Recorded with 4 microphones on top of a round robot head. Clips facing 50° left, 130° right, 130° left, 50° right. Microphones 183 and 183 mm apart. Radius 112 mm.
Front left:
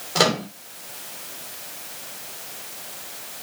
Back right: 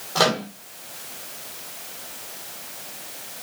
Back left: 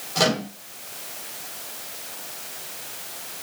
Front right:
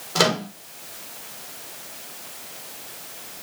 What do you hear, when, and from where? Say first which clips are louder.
0.1 s a microwave: even, front right 1 dB; 20° right, 2.5 m